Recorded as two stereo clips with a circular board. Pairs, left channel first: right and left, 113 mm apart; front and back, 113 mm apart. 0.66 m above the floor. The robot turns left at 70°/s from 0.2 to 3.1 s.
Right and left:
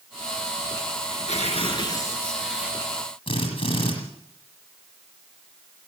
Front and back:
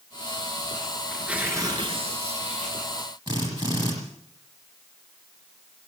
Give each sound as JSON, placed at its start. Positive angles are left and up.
{"t": 1.1, "sound": "tearing paper", "azimuth_deg": -85, "distance_m": 4.5}
{"t": 3.3, "sound": "a drill", "azimuth_deg": -130, "distance_m": 9.0}